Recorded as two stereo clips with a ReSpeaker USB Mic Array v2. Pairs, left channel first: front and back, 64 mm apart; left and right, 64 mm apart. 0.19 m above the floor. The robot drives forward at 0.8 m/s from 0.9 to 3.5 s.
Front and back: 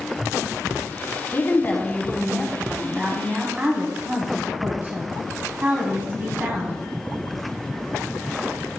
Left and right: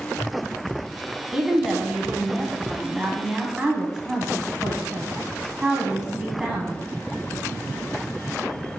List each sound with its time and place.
1.3 s a woman speaking: 15° right, 1.6 m; by 6.8 s 160° right, 1.4 m